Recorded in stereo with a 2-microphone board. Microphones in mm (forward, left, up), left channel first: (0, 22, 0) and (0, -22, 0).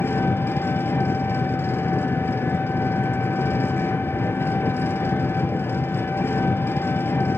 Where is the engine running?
75° left (ahead or behind), 1.2 m.